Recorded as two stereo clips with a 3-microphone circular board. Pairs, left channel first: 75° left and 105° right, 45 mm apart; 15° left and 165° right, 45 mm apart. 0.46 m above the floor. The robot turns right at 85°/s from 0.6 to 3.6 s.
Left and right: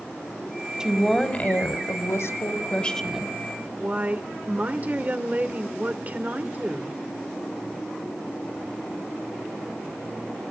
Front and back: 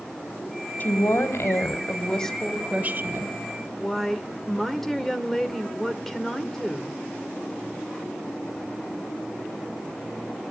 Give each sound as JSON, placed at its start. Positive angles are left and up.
{"t": 0.8, "sound": "a woman speaking", "azimuth_deg": -30, "distance_m": 2.0}
{"t": 3.8, "sound": "a woman speaking", "azimuth_deg": -65, "distance_m": 1.4}